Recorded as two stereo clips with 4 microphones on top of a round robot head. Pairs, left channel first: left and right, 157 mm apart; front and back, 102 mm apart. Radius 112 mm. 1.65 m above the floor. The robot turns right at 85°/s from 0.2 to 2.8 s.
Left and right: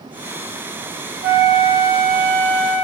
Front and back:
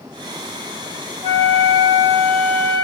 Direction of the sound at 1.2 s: 120° right.